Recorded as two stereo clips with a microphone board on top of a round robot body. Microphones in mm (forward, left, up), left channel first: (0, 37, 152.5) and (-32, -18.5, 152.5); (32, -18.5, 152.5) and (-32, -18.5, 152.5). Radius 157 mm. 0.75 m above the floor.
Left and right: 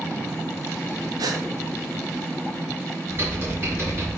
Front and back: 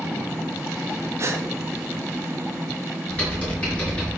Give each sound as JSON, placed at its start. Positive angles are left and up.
{"t": 1.2, "sound": "a gasp", "azimuth_deg": -135, "distance_m": 1.3}
{"t": 3.1, "sound": "typing on a keyboard", "azimuth_deg": -70, "distance_m": 5.5}